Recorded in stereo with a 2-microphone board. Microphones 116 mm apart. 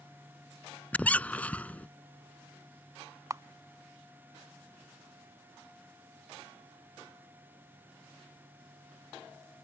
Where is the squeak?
15° left (ahead or behind).